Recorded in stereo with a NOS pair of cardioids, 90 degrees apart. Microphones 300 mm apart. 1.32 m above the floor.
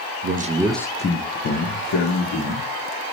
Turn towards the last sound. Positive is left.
turn(degrees=65)